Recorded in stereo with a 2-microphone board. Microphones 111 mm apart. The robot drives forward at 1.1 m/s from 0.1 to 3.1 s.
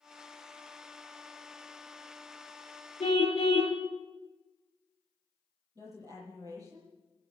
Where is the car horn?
60° left (ahead or behind), 2 m; by 3.8 s 65° left (ahead or behind), 2 m.